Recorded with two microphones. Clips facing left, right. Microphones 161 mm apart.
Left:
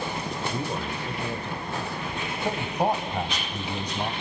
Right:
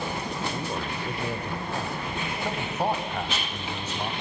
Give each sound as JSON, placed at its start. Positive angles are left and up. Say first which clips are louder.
{"t": 0.5, "sound": "a man speaking", "louder": "left 1 dB", "side_deg": 20, "distance_m": 1.4}
{"t": 2.5, "sound": "a man speaking", "louder": "left 3 dB", "side_deg": 15, "distance_m": 3.0}